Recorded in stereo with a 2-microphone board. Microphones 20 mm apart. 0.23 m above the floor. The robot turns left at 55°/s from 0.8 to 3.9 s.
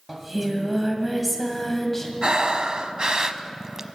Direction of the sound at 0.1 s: 10° right (ahead or behind).